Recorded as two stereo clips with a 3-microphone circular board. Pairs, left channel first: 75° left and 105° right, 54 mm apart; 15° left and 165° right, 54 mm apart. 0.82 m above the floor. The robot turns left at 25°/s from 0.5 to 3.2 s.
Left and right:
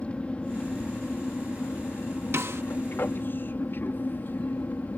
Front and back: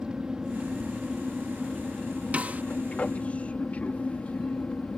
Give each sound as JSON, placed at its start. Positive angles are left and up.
{"t": 0.0, "sound": "an aircraft", "azimuth_deg": 130}
{"t": 2.3, "sound": "a snare drum", "azimuth_deg": -110}